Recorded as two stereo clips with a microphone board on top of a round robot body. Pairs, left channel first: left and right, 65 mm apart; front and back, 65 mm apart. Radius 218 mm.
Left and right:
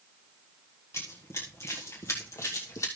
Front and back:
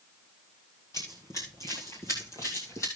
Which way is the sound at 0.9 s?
45° left.